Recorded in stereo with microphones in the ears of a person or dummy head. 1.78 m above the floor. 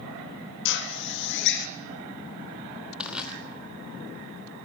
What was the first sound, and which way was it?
A drill, 60° left (ahead or behind).